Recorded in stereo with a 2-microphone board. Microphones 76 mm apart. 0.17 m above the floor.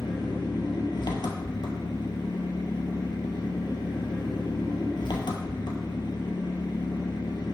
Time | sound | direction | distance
0.0 | an engine running | 75° left (ahead or behind) | 1.5 m